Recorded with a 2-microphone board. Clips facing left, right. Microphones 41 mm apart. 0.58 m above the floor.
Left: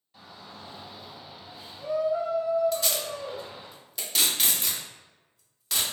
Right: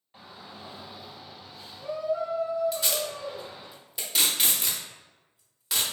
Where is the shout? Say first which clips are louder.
Right 1 dB; 30° right (ahead or behind), 1.0 m; by 3.7 s 65° left (ahead or behind), 1.6 m.